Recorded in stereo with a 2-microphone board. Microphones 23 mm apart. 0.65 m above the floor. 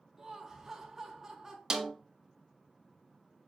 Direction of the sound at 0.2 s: 20° right (ahead or behind).